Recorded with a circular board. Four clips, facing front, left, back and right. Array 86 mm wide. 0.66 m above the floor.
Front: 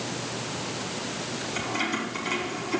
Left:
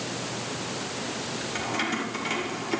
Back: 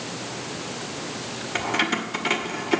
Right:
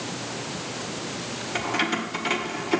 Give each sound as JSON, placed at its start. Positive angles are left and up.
{"t": 1.6, "sound": "keys jangling", "azimuth_deg": -165, "distance_m": 1.6}